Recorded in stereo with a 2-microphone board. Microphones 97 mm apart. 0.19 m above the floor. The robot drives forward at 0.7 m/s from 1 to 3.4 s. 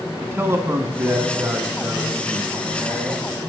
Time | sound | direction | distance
0.2 | a man speaking | 25° right (ahead or behind) | 1.6 m